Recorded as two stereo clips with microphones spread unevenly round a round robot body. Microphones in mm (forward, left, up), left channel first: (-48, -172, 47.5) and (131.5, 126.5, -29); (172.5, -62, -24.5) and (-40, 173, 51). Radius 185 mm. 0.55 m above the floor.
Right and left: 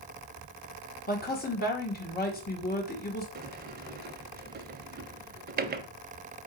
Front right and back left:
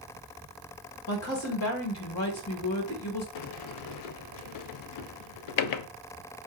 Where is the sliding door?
10° right, 0.5 m.